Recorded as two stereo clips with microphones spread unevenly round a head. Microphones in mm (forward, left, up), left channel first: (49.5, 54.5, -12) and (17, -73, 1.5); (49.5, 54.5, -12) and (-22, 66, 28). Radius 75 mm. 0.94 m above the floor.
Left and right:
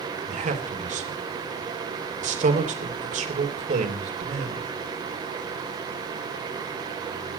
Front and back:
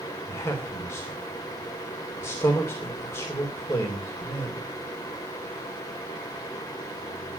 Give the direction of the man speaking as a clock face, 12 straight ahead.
2 o'clock.